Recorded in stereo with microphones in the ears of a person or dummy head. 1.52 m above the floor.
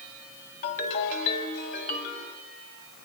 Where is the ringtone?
40° left (ahead or behind), 3.5 m.